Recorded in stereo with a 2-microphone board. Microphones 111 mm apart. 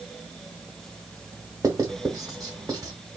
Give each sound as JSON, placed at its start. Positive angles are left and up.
{"t": 1.6, "sound": "writing", "side_deg": -35, "distance_m": 0.9}